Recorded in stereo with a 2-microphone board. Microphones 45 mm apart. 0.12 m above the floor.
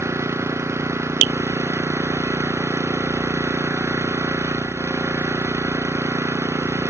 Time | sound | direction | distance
0.0 | an engine running | 80° right | ?